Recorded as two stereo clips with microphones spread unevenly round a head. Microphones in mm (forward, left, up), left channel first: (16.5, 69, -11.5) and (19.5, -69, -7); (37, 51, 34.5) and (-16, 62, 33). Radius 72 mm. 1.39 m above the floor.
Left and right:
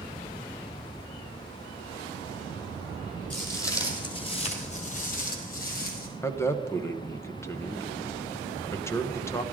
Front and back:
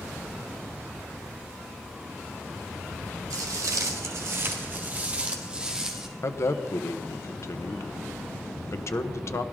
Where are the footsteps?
170° left, 2.5 m; by 6.1 s 85° left, 3 m.